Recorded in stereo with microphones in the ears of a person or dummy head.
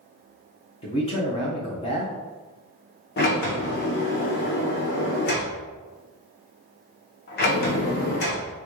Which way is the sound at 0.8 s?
25° left (ahead or behind).